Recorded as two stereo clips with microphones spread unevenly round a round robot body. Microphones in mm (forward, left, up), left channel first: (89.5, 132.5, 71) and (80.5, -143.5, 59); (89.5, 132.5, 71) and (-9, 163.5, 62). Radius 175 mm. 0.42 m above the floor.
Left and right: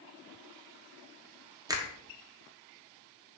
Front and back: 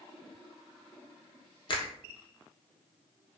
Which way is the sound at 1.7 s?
25° right.